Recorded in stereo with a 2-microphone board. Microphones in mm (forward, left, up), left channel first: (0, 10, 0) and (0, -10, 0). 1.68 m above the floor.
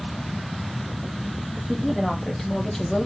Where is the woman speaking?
15° left (ahead or behind), 3 m; by 3.1 s 20° left (ahead or behind), 1.8 m.